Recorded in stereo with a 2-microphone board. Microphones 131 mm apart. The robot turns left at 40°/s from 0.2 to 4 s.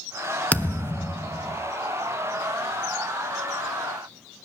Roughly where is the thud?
Centre.